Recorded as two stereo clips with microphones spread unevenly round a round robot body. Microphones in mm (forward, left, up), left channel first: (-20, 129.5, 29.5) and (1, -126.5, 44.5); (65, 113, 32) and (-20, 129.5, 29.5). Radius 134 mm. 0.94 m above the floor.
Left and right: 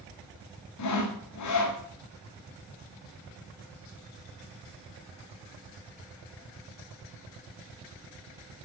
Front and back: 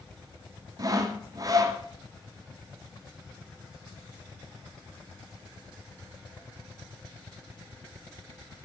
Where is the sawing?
120° left, 1.2 m.